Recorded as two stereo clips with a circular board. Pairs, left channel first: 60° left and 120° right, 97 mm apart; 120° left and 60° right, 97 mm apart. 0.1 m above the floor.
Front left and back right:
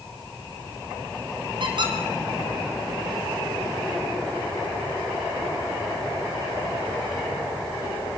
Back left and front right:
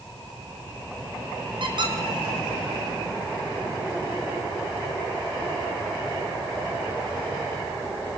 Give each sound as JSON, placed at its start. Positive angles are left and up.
{"t": 1.6, "sound": "a squeak", "azimuth_deg": -90, "distance_m": 4.0}